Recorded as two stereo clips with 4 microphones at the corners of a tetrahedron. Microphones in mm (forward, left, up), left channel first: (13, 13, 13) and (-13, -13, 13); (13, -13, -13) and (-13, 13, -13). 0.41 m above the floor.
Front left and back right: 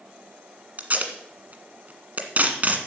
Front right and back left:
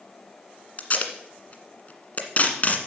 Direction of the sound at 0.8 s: 90° right.